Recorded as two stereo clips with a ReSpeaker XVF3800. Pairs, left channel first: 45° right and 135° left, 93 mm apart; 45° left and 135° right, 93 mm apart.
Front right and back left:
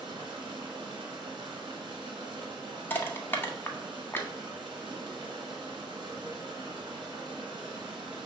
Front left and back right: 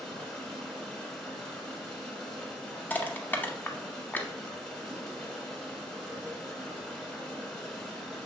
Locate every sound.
0.0 s running water: 125° left, 1.2 m
2.9 s crushing: 5° right, 0.6 m